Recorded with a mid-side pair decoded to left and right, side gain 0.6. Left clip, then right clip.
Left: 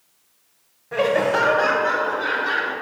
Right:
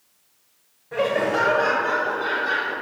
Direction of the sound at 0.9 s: 20° left.